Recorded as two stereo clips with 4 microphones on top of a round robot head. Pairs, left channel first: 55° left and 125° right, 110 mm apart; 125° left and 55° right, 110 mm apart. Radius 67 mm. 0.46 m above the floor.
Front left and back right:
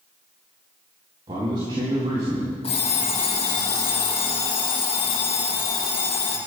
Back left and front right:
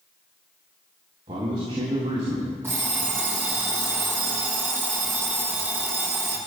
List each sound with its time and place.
1.3 s a man speaking: 90° right, 4.5 m
2.6 s an alarm clock: 15° left, 7 m